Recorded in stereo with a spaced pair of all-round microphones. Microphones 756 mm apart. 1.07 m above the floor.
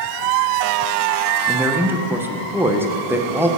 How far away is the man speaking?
About 0.5 m.